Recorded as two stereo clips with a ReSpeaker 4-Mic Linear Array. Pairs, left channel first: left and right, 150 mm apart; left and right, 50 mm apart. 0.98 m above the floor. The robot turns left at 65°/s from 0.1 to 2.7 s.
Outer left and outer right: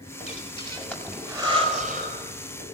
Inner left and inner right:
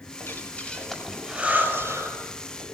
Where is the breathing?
55° left (ahead or behind), 5.5 m; by 2.8 s 75° right (ahead or behind), 5.5 m.